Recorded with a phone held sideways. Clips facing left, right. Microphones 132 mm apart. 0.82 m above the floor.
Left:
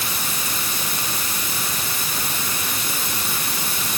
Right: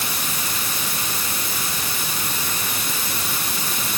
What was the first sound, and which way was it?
Only background noise.